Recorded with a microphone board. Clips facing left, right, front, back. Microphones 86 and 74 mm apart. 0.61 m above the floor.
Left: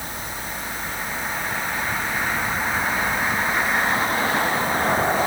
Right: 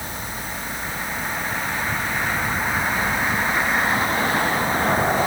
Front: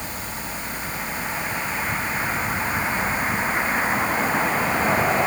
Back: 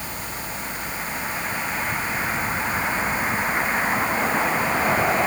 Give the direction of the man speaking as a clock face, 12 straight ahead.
No man speaking in this recording.